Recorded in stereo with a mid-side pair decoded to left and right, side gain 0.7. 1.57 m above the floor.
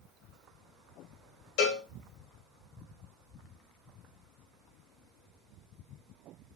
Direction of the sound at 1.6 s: 70° left.